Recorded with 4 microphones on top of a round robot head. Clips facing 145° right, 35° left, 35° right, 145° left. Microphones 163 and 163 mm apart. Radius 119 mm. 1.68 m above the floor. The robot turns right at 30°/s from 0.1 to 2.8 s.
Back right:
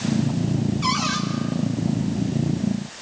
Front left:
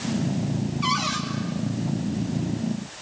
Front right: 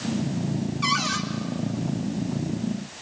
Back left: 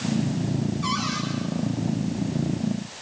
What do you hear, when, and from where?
0.8 s a cupboard door: 50° right, 3 m; by 1.2 s 40° right, 3 m